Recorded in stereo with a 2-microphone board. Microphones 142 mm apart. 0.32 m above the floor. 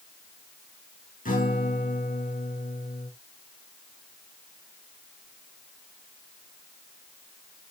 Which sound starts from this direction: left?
A guitar, at 1.2 s.